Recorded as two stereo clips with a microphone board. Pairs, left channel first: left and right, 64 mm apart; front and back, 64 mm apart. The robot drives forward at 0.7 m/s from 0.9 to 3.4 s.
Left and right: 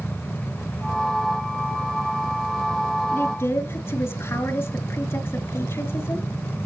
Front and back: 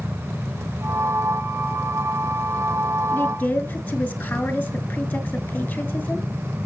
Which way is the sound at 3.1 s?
55° left.